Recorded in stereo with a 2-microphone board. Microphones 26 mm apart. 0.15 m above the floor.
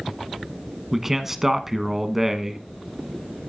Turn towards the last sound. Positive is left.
turn(degrees=-15)  # may be behind; listen again after turning